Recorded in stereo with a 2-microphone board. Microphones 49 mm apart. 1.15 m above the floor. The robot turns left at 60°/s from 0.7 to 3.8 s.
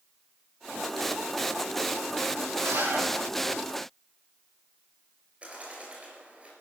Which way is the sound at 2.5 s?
80° right.